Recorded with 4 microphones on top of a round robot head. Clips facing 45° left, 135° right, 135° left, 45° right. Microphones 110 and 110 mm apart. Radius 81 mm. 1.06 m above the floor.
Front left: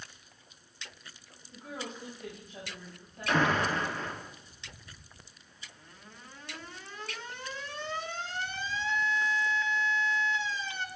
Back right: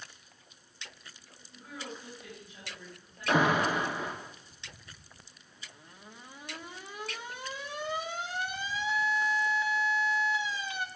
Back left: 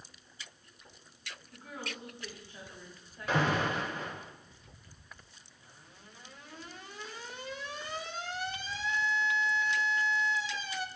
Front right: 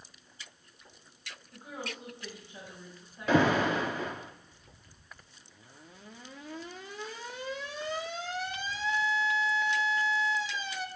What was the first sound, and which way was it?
A woman speaking, 20° left.